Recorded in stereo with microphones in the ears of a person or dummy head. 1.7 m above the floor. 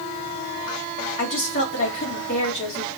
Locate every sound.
1.2 s a woman speaking: 45° left (ahead or behind), 2 m